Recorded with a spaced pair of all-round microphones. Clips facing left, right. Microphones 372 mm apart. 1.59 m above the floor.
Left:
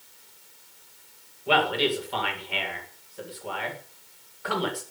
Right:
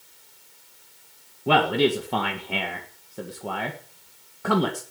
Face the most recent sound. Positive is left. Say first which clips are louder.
# right 4 dB
turn(degrees=-60)  # may be behind; listen again after turning